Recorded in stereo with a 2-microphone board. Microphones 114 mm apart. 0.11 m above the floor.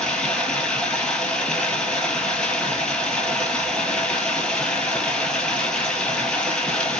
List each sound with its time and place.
0.0 s running water: 5° left (ahead or behind), 1.3 m